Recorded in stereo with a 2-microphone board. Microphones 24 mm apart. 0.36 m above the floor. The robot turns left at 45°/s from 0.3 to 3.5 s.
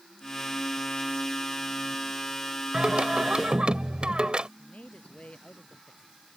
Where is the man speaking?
65° left (ahead or behind).